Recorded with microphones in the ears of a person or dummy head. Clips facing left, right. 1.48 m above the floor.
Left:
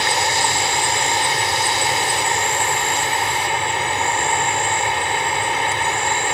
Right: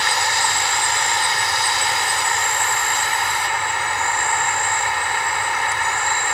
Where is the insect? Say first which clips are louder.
Left 3 dB; 25° left (ahead or behind).